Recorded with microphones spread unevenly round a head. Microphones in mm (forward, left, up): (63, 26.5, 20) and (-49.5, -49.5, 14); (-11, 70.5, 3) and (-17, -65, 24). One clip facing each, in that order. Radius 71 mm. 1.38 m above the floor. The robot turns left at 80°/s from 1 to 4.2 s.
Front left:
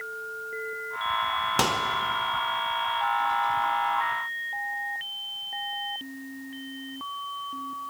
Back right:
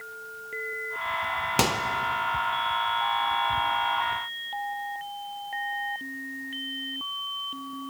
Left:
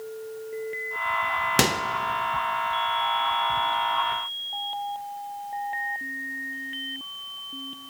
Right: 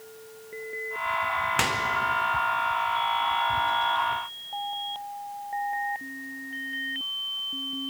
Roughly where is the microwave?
Behind left.